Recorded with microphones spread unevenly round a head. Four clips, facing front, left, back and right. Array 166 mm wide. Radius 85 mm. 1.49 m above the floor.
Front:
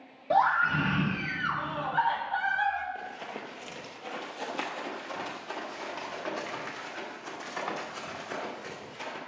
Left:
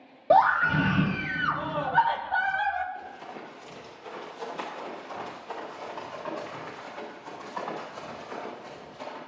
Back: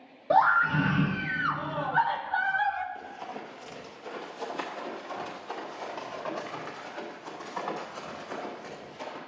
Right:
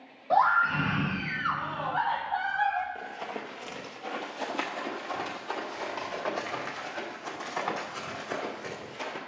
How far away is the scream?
About 0.9 m.